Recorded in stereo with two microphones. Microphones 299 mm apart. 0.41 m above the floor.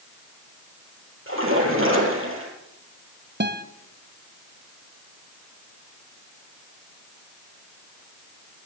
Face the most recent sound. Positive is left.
turn(degrees=-35)  # may be behind; listen again after turning